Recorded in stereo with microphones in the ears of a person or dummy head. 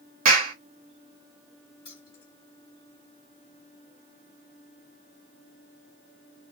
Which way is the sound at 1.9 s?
25° left (ahead or behind).